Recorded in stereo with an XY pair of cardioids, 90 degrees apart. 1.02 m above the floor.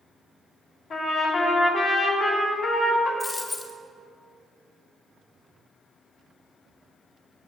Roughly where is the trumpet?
Ahead left.